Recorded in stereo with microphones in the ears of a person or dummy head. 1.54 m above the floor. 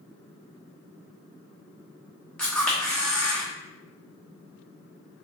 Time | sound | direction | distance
2.4 | a camera shutter | 5° left (ahead or behind) | 0.9 m